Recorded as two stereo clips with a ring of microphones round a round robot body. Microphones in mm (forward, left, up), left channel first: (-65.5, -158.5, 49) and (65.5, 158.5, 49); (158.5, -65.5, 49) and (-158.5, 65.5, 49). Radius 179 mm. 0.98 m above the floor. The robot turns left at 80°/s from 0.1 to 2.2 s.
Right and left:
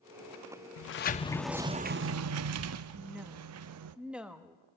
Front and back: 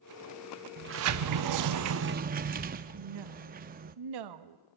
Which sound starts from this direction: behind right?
A sliding door, at 0.8 s.